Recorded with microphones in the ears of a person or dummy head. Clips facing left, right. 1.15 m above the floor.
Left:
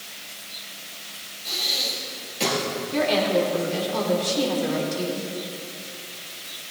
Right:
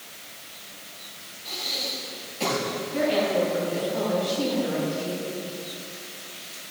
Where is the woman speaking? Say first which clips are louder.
Left 2 dB; 80° left, 3 m.